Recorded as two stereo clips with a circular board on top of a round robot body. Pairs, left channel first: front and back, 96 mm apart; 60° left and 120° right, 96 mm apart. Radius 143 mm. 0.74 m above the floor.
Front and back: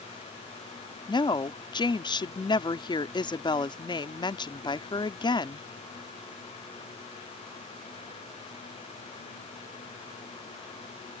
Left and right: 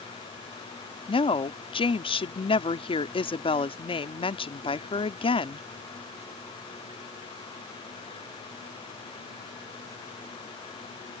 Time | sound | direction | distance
1.1 | a woman speaking | 40° left | ?